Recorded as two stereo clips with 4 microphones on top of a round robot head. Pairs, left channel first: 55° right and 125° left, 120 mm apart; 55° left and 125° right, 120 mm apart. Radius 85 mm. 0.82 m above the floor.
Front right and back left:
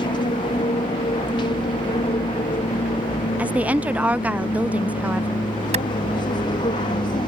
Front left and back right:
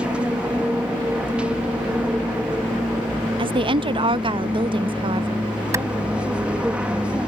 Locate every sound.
0.0 s an aircraft: 50° right
3.4 s a woman speaking: 155° right
5.7 s a clap: 165° left